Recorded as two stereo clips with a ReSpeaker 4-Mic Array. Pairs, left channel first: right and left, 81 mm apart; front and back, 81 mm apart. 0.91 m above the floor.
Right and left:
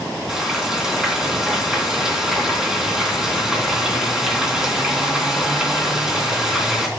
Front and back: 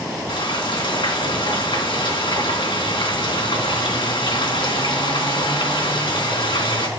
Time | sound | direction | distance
0.3 | frying | 10° left | 3 m